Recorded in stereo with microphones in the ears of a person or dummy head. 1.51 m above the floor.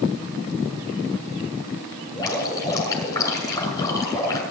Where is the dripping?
20° left (ahead or behind), 6.5 m.